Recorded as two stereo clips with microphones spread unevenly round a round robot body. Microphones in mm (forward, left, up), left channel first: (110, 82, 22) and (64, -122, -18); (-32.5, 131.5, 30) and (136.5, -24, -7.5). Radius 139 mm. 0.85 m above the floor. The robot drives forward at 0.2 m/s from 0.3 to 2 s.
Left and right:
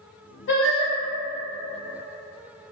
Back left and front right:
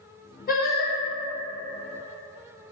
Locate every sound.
0.5 s singing: 85° left, 0.9 m; by 0.9 s 95° left, 0.9 m